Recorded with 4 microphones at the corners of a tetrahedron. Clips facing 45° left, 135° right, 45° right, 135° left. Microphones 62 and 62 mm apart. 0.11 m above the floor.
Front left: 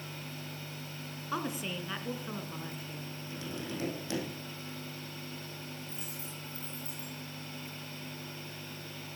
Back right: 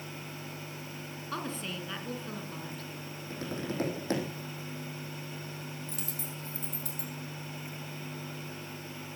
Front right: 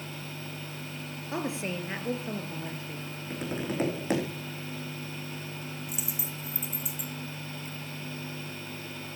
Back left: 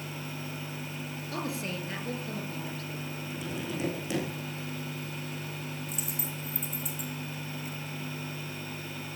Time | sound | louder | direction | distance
1.3 | a woman speaking | front left 2 dB, front right 3 dB | 20° right | 1.8 m
3.3 | tapping | back right 4 dB, front right 4 dB | 90° right | 4.5 m
5.9 | a dropped coin | back right 3 dB, back left 1 dB | 130° right | 2.5 m